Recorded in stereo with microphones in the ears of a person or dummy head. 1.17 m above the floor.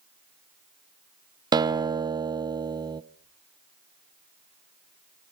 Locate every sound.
1.5 s a guitar: 20° right (ahead or behind), 0.8 m